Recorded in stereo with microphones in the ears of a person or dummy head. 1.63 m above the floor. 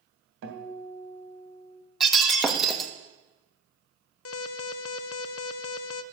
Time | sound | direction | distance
0.4 | a guitar | 60° right (ahead or behind) | 2.5 m
2.0 | breaking glass | centre (ahead or behind) | 1.4 m
4.2 | an alarm | 80° left | 0.8 m